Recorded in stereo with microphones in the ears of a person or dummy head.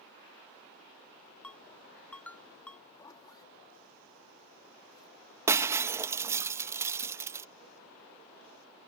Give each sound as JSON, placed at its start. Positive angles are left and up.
{"t": 1.4, "sound": "a ringtone", "side_deg": 5}
{"t": 2.9, "sound": "a zipper", "side_deg": 25}
{"t": 5.5, "sound": "breaking glass", "side_deg": -15}